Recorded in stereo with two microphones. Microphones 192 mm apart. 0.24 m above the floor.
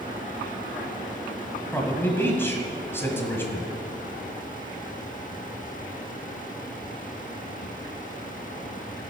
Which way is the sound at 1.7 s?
10° left (ahead or behind).